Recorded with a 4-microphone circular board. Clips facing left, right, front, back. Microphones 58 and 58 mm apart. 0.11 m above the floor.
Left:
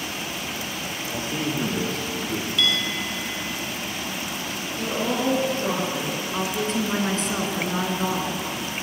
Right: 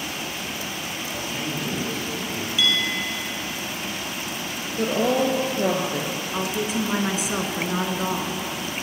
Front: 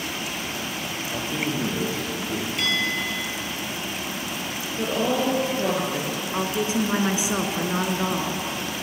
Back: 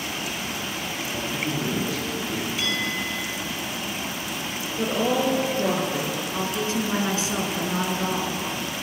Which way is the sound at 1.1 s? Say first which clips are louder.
Left 4 dB, front 1 dB; 55° left.